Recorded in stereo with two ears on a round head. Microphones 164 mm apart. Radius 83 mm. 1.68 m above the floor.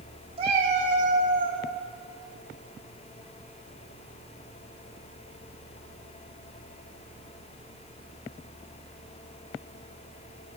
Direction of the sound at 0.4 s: 35° right (ahead or behind).